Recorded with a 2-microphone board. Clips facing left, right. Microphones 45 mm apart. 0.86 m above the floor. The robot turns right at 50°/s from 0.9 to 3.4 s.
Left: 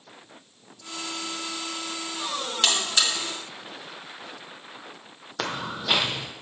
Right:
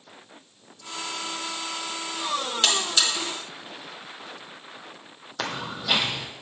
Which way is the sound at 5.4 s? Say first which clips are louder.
Left 1 dB; 10° left (ahead or behind).